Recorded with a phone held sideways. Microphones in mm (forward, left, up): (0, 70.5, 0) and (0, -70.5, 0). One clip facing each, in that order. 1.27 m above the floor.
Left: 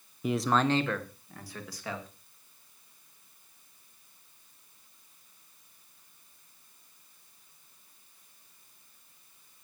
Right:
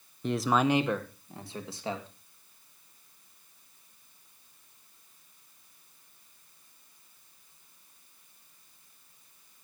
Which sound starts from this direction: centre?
A man speaking, at 0.2 s.